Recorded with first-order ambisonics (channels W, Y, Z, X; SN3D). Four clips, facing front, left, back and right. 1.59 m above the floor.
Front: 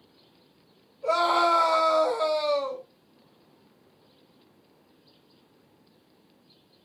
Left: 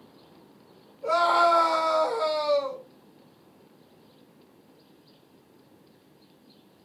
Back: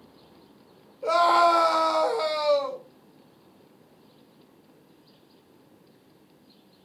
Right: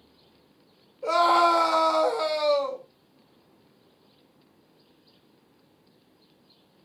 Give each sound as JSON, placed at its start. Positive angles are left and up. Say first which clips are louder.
{"t": 1.0, "sound": "a scream", "louder": "right 1 dB, back 3 dB", "azimuth_deg": -145, "distance_m": 1.0}